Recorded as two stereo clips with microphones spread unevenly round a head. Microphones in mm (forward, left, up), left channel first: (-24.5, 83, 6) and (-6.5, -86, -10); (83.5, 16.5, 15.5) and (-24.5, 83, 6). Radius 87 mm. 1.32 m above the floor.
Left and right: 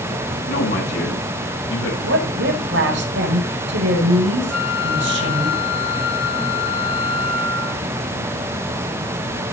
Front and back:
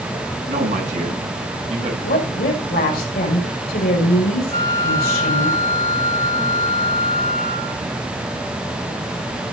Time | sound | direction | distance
0.5 | a man speaking | 115° left | 8.5 m
2.0 | a woman speaking | 55° right | 5.5 m
4.5 | a flute | 35° right | 8 m